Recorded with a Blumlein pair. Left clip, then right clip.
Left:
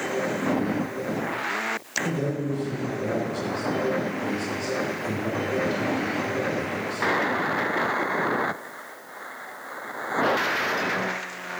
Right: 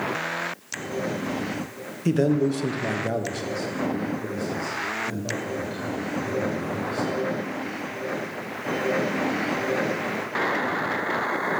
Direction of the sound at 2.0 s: 70° right.